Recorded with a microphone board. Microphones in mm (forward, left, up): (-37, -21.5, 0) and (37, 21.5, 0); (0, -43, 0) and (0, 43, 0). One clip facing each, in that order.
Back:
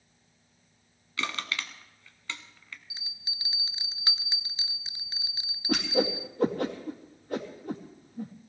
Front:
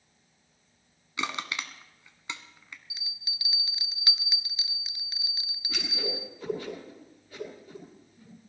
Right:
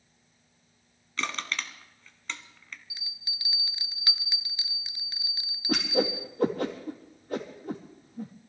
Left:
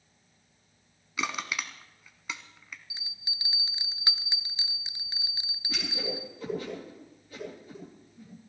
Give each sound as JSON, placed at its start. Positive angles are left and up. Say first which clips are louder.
{"t": 1.2, "sound": "crushing", "louder": "front 1 dB, even", "azimuth_deg": 35, "distance_m": 1.2}
{"t": 2.9, "sound": "a bell", "louder": "front 1 dB, even", "azimuth_deg": 155, "distance_m": 0.5}
{"t": 5.7, "sound": "a whoosh", "louder": "back 9 dB, right 9 dB", "azimuth_deg": -120, "distance_m": 3.5}